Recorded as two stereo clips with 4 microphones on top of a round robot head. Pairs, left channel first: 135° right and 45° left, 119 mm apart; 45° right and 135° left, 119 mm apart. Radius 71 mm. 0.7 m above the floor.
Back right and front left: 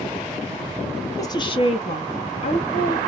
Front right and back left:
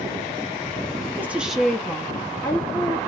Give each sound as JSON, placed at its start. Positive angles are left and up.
{"t": 1.2, "sound": "a woman speaking", "azimuth_deg": -170, "distance_m": 0.5}